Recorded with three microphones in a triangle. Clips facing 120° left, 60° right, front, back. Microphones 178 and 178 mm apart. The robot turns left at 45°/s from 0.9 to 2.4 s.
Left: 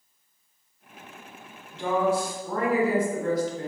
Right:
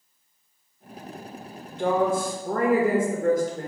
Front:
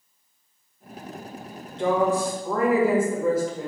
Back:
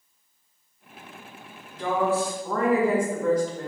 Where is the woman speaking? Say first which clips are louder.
Right 2 dB, front 3 dB; 50° right, 1.0 m; by 3.7 s 80° right, 1.0 m.